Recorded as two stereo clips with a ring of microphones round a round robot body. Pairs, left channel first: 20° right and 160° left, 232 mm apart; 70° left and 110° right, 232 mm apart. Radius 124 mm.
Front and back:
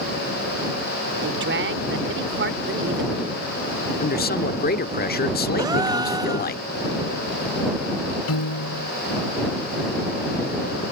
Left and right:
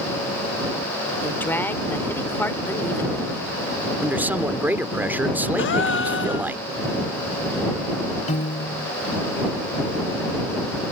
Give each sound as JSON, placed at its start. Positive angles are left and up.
{"t": 1.2, "sound": "a woman speaking", "azimuth_deg": 145}
{"t": 4.0, "sound": "a man speaking", "azimuth_deg": -35}
{"t": 5.6, "sound": "a gasp", "azimuth_deg": 85}
{"t": 8.3, "sound": "a piano", "azimuth_deg": 5}